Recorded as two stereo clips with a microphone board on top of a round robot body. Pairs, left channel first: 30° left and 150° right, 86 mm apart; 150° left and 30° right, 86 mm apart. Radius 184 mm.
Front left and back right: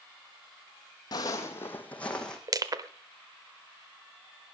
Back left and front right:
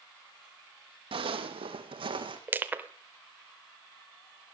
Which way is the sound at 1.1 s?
15° right.